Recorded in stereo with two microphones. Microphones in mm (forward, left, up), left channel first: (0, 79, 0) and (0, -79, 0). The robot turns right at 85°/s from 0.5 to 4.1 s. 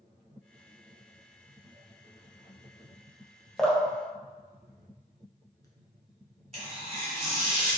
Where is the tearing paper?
40° right (ahead or behind), 1.9 m.